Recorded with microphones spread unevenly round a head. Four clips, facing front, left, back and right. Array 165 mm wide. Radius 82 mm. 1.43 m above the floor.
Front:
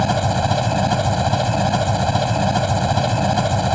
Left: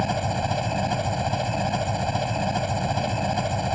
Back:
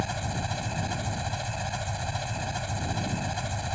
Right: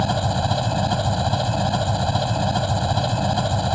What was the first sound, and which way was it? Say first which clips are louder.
An engine running: right 3 dB, front 14 dB; 5° right.